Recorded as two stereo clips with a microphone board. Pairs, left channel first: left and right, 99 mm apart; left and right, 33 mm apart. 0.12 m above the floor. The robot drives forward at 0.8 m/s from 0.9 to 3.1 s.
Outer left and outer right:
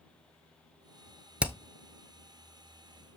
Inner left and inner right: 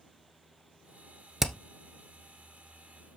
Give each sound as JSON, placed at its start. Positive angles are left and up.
{"t": 1.4, "sound": "hammering", "side_deg": -15, "distance_m": 0.9}